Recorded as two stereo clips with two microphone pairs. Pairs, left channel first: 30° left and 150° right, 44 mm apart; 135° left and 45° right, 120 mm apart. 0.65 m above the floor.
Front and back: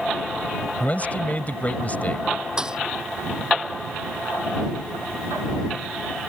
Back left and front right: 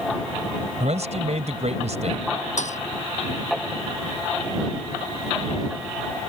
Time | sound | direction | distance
0.8 | a man speaking | 25° right | ?
2.6 | a thud | 135° left | ?